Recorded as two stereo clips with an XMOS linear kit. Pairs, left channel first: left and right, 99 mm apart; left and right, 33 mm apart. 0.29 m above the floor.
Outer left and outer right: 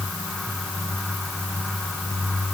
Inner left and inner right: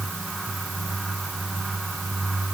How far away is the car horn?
I don't hear a car horn.